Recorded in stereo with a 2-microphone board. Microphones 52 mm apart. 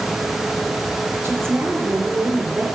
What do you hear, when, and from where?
1.2 s a woman speaking: 50° right (ahead or behind), 4 m